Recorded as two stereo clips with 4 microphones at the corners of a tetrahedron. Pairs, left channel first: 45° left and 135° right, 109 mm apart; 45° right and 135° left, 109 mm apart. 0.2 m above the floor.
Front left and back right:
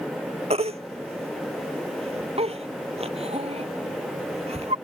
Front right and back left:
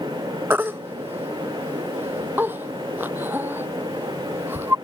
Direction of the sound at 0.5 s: 155° right.